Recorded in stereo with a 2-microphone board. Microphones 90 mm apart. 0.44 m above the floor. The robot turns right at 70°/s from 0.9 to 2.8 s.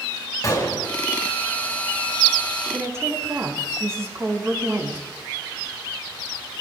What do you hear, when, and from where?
0.4 s a gunshot: 40° left (ahead or behind), 4 m; by 0.9 s 35° left (ahead or behind), 4 m
2.7 s a woman speaking: 25° right (ahead or behind), 3.5 m; by 5.0 s 30° right (ahead or behind), 3.5 m